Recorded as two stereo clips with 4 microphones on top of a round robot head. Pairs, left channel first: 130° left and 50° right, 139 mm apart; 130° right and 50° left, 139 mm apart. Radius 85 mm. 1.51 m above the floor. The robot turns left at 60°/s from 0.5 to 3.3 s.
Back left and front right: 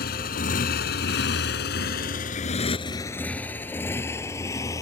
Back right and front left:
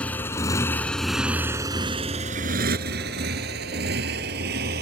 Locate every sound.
0.0 s a motorcycle: 150° left; by 4.8 s 60° left